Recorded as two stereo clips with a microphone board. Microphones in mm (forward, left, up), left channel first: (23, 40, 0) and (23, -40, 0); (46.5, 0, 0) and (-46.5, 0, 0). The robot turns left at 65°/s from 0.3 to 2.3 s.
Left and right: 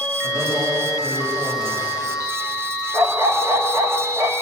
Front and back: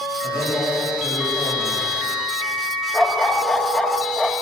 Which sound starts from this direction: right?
A dog barking, at 2.9 s.